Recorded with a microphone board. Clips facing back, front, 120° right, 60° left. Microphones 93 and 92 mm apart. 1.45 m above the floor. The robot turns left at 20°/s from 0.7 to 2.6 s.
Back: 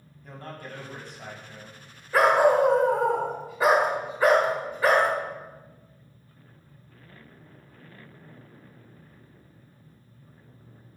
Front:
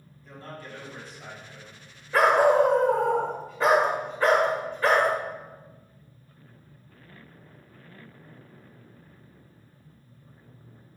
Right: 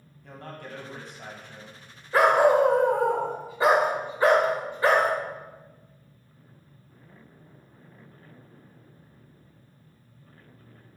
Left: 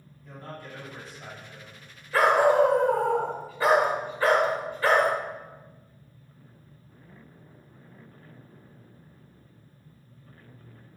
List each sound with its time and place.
0.2 s a man speaking: 145° right, 1.7 m; by 1.8 s 165° right, 1.7 m
2.1 s a dog barking: 100° right, 1.2 m; by 5.1 s 110° right, 1.2 m